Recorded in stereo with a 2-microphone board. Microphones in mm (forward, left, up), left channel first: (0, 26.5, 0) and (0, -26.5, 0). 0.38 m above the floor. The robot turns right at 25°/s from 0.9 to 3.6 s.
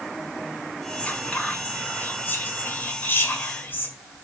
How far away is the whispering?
About 1.6 m.